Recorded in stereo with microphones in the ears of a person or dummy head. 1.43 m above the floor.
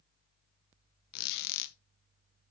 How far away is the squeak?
About 0.6 m.